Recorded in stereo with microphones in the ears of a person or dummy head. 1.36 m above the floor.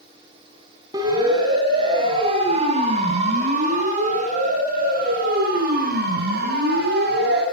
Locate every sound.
0.9 s a siren: 20° right (ahead or behind), 9.5 m; by 7.4 s 60° right (ahead or behind), 15 m